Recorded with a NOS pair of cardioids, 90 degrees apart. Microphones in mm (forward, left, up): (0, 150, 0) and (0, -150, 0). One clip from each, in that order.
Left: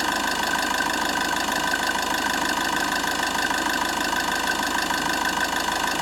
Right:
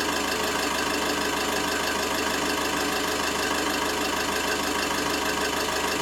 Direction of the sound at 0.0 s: 70° left.